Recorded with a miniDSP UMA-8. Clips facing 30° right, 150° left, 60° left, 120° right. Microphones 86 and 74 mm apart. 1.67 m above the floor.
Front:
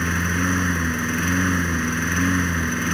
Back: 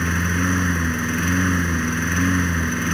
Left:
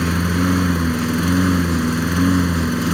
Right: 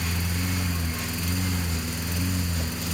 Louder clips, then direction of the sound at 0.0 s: Back 1 dB, left 12 dB; 60° left.